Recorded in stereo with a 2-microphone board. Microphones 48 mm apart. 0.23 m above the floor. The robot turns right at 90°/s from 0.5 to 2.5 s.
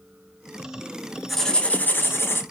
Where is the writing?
Straight ahead, 0.7 m; by 2.4 s 100° left, 0.7 m.